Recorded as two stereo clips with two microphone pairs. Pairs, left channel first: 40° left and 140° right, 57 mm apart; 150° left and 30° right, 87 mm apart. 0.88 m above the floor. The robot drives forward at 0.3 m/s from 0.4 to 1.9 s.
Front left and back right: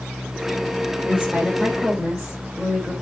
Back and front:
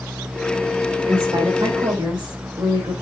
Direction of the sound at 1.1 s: 65° right.